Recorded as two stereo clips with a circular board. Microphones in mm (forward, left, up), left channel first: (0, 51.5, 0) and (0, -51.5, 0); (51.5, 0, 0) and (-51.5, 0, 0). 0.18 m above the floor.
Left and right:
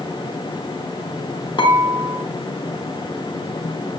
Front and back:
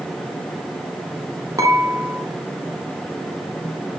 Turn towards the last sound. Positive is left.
turn(degrees=130)